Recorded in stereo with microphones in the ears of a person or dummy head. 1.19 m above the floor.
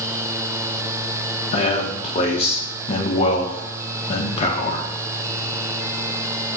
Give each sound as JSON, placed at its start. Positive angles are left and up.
{"t": 1.5, "sound": "a man speaking", "side_deg": 35, "distance_m": 0.6}